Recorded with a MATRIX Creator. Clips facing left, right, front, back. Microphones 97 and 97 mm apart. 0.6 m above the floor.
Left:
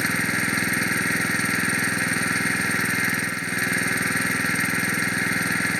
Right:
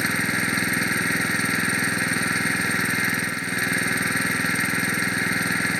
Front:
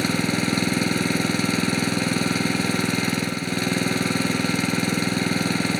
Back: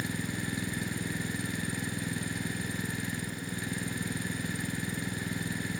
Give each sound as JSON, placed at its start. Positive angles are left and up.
{"t": 0.0, "sound": "an engine running", "azimuth_deg": 0}